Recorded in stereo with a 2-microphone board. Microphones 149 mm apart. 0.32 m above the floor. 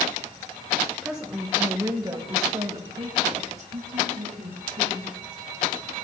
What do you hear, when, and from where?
1.0 s a woman speaking: centre (ahead or behind), 1.0 m; by 5.2 s 70° right (ahead or behind), 2 m